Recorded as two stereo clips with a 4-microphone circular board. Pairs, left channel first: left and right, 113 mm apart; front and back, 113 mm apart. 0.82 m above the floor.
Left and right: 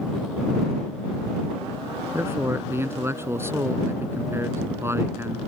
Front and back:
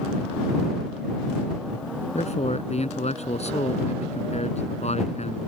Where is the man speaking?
20° right.